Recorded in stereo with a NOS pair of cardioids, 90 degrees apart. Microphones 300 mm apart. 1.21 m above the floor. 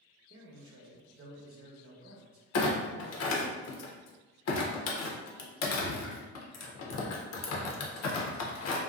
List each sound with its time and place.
0.3 s a man speaking: 55° right, 0.8 m
2.5 s a clunk: 65° left, 0.6 m